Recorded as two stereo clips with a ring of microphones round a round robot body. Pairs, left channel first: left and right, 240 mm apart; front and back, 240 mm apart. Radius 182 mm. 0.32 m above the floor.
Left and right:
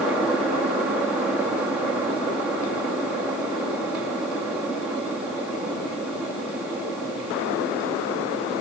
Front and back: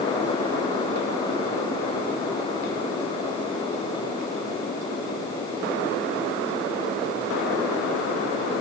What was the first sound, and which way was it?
Only background noise.